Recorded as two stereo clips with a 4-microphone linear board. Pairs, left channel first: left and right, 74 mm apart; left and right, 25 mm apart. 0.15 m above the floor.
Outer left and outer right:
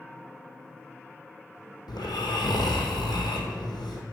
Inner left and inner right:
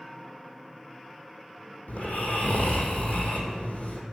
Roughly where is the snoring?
Left.